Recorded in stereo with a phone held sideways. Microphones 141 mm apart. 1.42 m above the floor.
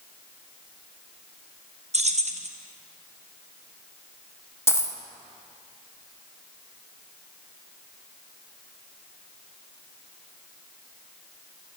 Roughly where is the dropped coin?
Centre.